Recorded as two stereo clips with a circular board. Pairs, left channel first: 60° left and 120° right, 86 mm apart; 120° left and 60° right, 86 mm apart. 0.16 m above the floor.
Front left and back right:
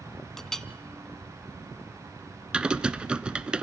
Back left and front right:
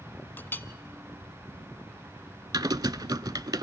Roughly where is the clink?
Behind left.